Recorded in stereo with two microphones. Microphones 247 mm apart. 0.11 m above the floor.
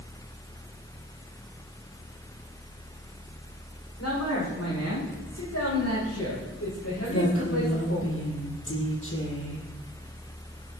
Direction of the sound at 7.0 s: 55° left (ahead or behind).